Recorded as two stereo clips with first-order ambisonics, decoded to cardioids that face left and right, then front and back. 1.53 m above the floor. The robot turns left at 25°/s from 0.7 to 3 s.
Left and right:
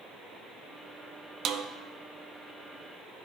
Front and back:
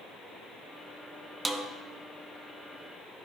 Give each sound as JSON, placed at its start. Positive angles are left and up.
{"t": 1.4, "sound": "a snare drum", "azimuth_deg": -110, "distance_m": 0.6}